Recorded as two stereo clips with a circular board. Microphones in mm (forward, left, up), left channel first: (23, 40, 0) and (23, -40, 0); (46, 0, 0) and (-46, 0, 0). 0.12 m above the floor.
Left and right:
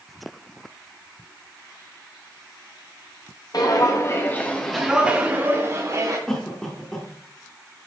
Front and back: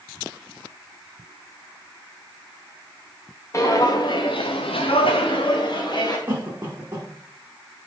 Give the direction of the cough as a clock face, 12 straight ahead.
7 o'clock.